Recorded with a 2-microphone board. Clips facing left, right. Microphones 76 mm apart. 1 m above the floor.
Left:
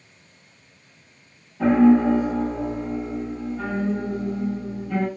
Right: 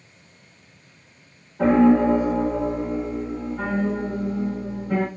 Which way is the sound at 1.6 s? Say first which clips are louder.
Even; 60° right (ahead or behind).